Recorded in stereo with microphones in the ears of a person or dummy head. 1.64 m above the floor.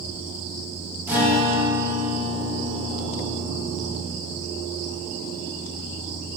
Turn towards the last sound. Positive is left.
turn(degrees=-10)  # may be behind; listen again after turning